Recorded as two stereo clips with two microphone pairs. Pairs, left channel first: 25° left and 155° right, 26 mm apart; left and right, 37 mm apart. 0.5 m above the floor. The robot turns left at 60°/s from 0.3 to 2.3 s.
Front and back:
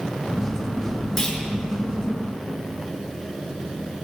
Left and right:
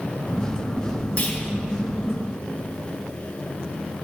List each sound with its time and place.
1.2 s a clunk: 95° left, 1.2 m; by 1.4 s 80° left, 1.2 m